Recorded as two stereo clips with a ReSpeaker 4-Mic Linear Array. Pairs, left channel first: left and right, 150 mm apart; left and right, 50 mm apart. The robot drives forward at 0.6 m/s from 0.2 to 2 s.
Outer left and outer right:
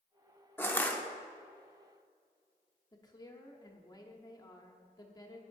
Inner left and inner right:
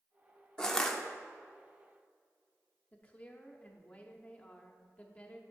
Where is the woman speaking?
25° left (ahead or behind), 0.8 m.